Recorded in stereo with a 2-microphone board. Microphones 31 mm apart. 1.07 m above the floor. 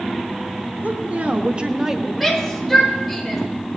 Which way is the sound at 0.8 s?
65° right (ahead or behind).